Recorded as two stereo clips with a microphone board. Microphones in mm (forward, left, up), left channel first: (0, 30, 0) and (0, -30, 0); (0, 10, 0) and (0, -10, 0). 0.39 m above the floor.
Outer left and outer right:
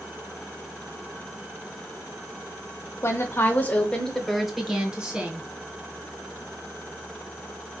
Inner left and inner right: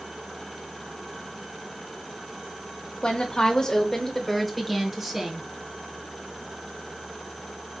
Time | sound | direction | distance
3.0 | a woman speaking | 40° left (ahead or behind) | 1.1 m